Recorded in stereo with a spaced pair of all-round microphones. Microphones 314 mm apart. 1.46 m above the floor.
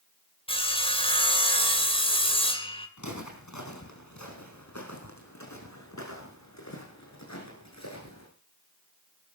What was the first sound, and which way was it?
Sawing, 20° left (ahead or behind).